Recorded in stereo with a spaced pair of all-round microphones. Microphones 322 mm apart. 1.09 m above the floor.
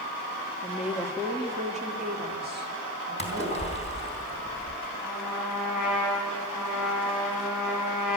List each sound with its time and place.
0.6 s a woman speaking: 5° left (ahead or behind), 1.6 m; by 3.7 s 40° right (ahead or behind), 3.5 m
3.2 s a splash: 20° left (ahead or behind), 3 m
5.0 s a trumpet: 85° right, 5.5 m